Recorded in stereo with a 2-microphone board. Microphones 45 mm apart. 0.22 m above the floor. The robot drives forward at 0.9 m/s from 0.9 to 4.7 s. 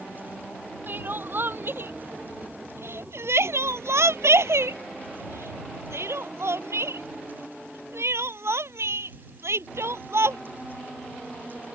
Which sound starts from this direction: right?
Crying, at 0.9 s.